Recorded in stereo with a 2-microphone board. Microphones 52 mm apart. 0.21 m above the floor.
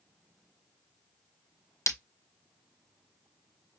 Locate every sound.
1.9 s breaking glass: 60° left (ahead or behind), 0.7 m